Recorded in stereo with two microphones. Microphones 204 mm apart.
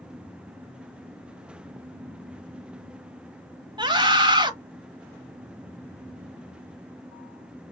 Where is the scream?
20° right (ahead or behind), 1.0 m.